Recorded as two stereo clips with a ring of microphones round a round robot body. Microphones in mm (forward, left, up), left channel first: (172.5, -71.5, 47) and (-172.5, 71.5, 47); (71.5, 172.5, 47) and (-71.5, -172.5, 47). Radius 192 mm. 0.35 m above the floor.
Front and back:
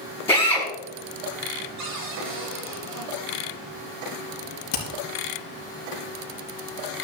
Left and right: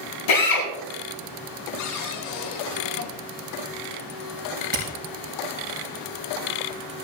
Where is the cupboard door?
110° left, 4 m.